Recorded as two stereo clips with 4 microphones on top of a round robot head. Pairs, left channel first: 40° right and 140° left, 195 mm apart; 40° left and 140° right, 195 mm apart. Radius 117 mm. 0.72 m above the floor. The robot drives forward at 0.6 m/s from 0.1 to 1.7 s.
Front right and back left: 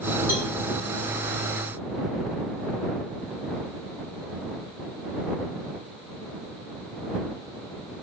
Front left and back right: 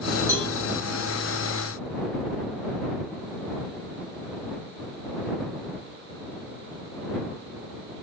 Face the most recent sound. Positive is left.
turn(degrees=-90)